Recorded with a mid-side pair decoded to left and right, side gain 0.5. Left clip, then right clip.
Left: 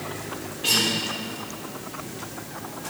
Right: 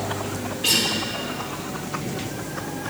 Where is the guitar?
25° right, 3 m.